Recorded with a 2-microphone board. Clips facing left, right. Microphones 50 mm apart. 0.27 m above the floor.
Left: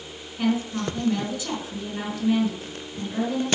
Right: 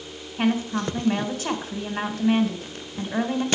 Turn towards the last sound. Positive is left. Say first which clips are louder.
# right 1 dB
turn(degrees=-50)  # may be behind; listen again after turning